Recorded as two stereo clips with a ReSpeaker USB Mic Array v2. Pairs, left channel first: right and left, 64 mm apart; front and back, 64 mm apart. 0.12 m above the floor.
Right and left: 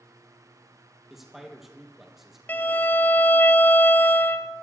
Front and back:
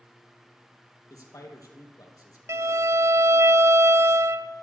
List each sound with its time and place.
1.1 s a man speaking: 5° left, 3.5 m
2.5 s a violin: 150° right, 0.5 m